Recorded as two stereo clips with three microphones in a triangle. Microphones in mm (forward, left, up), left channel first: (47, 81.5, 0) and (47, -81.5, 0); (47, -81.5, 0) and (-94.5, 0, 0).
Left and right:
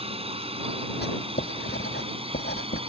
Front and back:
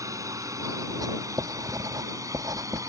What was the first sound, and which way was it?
A drone, 140° right.